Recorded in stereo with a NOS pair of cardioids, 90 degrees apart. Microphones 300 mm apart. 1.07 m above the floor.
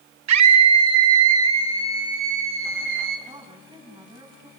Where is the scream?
65° right, 1.0 m; by 3.2 s 40° right, 2.5 m.